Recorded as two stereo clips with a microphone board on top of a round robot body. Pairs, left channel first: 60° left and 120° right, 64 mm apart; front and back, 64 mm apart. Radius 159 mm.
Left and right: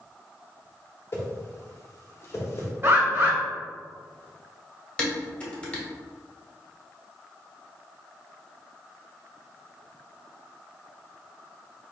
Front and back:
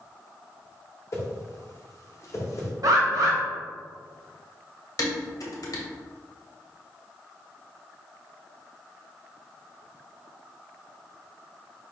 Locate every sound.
1.1 s a whoosh: 25° left, 1.2 m
2.8 s a bird: 175° right, 1.7 m
5.0 s dishes clattering: 10° right, 1.3 m